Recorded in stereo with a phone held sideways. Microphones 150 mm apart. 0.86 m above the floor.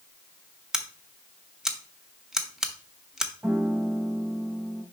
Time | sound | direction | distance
0.7 | scissors | 5° right (ahead or behind) | 0.7 m
3.4 | a piano | 10° right (ahead or behind) | 0.8 m